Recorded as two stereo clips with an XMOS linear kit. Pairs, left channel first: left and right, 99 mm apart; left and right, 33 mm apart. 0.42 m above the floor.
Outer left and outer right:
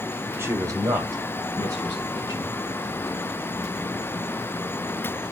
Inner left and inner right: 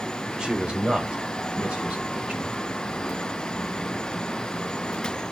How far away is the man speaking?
About 0.9 m.